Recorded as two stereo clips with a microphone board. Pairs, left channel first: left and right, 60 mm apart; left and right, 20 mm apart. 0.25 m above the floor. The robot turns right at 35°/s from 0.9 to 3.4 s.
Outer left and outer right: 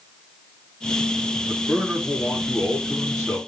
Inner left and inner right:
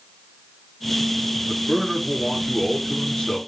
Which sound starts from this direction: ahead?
A man speaking, at 1.5 s.